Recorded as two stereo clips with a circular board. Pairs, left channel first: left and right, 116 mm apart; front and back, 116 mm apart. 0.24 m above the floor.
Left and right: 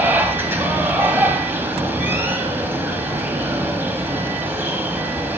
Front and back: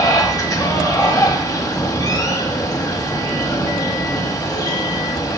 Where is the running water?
30° right, 1.1 m.